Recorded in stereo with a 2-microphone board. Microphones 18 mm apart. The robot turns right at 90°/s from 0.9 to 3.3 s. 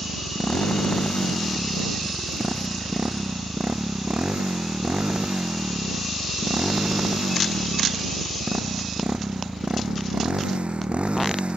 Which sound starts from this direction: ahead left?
A motorcycle, at 0.0 s.